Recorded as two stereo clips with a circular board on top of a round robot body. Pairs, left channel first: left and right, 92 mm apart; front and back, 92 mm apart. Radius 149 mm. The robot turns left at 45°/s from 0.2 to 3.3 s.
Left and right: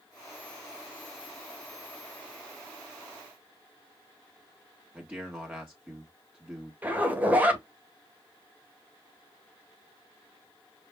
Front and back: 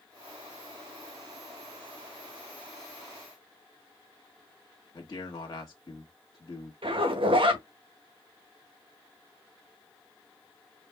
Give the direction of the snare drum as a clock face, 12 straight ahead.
I don't hear a snare drum.